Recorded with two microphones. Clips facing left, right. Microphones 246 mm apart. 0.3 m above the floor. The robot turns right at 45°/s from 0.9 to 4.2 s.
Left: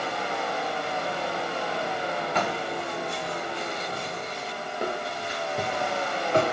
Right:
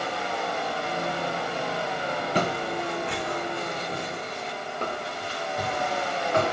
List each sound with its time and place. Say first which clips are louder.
2.4 s footsteps: right 2 dB; 35° right (ahead or behind), 1.8 m; by 6.4 s 30° left (ahead or behind), 3.5 m